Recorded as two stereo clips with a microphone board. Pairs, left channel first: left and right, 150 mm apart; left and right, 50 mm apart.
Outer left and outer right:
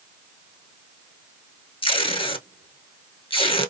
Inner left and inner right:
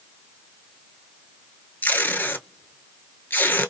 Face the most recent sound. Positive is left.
turn(degrees=40)  # may be behind; listen again after turning